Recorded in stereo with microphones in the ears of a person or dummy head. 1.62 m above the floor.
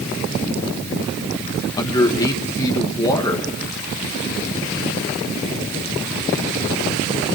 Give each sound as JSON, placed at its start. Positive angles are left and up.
{"t": 1.8, "sound": "a man speaking", "side_deg": 25, "distance_m": 1.9}